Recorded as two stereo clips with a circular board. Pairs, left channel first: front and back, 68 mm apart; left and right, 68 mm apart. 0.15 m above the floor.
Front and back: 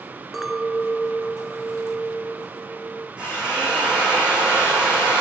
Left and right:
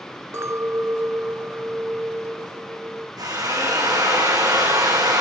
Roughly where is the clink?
Right.